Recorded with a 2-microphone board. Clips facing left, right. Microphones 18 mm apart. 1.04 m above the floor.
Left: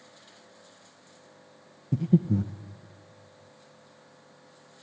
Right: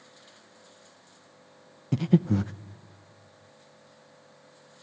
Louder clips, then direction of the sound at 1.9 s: Right 1 dB; 50° right (ahead or behind).